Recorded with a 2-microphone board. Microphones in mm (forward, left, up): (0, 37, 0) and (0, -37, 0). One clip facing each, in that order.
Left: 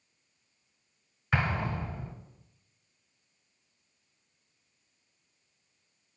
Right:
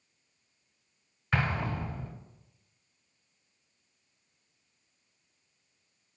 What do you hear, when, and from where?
1.3 s an explosion: 5° left (ahead or behind), 1.4 m